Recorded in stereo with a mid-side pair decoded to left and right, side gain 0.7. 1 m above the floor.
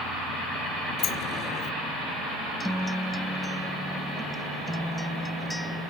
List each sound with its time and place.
1.0 s a sliding door: 45° left
2.6 s a guitar: straight ahead